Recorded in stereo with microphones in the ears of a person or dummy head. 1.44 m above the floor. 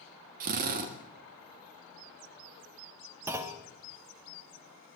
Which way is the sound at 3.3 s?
15° right (ahead or behind).